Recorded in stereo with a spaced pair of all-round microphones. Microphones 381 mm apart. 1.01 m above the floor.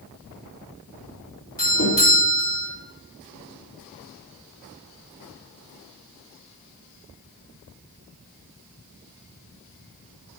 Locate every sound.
1.6 s a doorbell: 60° left (ahead or behind), 3 m